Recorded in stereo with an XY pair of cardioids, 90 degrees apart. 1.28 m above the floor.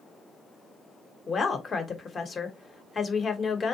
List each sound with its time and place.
1.3 s a woman speaking: 45° left, 1.0 m